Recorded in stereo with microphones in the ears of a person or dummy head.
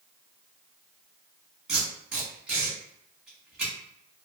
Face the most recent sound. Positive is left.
turn(degrees=-5)  # may be behind; listen again after turning